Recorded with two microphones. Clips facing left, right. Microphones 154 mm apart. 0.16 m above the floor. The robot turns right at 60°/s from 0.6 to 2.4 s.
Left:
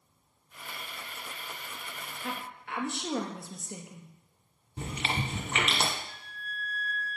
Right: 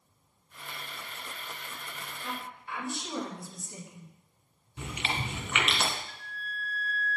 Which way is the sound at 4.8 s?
40° left (ahead or behind).